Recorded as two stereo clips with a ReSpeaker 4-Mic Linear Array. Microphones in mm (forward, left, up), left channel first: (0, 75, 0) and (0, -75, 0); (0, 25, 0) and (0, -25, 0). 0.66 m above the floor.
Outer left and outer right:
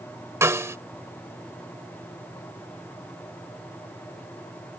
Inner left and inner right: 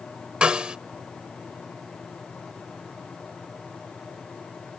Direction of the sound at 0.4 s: 20° right (ahead or behind).